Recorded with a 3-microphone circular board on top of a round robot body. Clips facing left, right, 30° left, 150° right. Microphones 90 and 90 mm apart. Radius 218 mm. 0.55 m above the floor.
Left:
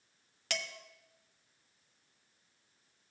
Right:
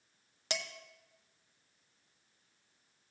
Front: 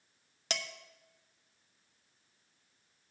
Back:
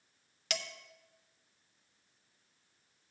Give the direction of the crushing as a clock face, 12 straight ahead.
I don't hear crushing.